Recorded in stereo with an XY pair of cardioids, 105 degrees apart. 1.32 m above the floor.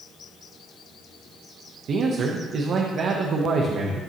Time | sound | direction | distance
1.9 | a man speaking | 60° right | 1.0 m